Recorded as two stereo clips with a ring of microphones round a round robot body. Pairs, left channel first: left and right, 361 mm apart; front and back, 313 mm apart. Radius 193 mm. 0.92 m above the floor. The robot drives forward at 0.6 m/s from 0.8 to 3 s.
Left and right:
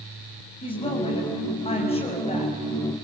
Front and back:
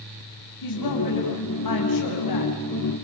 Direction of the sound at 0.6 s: 15° left.